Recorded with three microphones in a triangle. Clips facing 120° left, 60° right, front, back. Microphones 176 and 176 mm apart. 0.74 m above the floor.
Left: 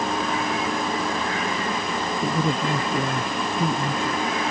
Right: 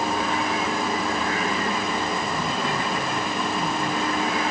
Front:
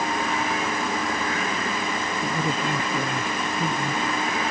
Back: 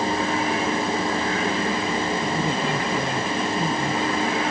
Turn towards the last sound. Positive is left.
turn(degrees=90)